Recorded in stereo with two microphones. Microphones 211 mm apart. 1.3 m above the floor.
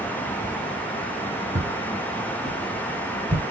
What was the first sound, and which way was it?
Footsteps, 15° right (ahead or behind).